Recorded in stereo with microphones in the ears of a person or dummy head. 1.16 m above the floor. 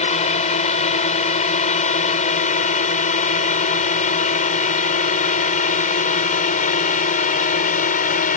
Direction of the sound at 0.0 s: 35° left (ahead or behind).